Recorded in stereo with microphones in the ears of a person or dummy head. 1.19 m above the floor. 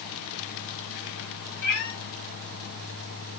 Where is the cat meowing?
55° left (ahead or behind), 0.9 m.